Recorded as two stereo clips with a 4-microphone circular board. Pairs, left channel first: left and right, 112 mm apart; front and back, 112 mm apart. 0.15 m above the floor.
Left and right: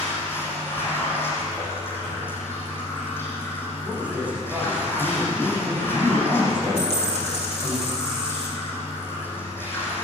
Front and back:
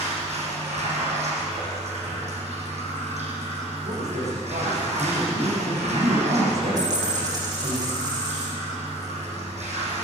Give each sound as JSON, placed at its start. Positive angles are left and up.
{"t": 0.0, "sound": "running water", "azimuth_deg": 160, "distance_m": 6.5}
{"t": 3.8, "sound": "a man speaking", "azimuth_deg": -165, "distance_m": 9.5}
{"t": 6.8, "sound": "a dropped coin", "azimuth_deg": 125, "distance_m": 8.5}